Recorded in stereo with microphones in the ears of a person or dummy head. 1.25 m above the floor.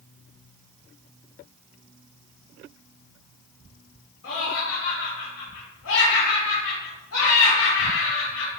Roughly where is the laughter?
Left.